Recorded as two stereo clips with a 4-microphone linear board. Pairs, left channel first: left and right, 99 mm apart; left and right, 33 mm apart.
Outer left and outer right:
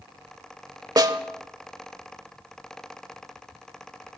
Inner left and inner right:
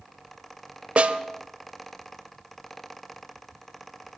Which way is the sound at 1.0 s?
40° right (ahead or behind).